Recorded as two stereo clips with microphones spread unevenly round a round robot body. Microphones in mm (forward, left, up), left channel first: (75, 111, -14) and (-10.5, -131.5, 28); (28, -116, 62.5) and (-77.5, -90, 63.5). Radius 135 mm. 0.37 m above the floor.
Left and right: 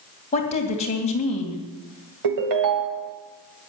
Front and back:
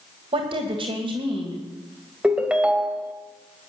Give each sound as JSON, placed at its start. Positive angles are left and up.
{"t": 0.3, "sound": "a woman speaking", "azimuth_deg": 130, "distance_m": 2.5}
{"t": 2.2, "sound": "a ringtone", "azimuth_deg": -115, "distance_m": 1.7}